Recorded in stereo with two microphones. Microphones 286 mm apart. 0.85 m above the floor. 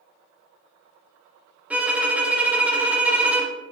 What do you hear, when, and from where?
1.7 s a violin: 5° right (ahead or behind), 0.5 m